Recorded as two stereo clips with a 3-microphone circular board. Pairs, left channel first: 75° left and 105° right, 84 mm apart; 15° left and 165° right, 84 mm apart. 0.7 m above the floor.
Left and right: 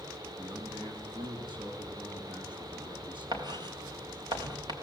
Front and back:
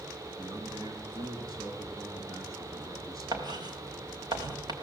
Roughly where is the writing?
Behind right.